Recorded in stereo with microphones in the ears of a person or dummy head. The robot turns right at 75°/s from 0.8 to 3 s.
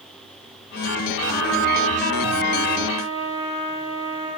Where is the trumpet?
105° right, 9 m; by 4.3 s 35° left, 9 m.